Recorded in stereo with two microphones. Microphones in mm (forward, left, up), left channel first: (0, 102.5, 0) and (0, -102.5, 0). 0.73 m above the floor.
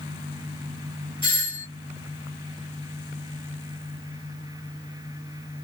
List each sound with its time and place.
1.2 s a doorbell: 25° left (ahead or behind), 1.8 m